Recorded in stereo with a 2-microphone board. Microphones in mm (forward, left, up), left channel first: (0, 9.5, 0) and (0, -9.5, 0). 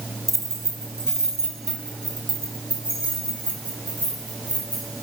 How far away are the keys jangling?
About 2 m.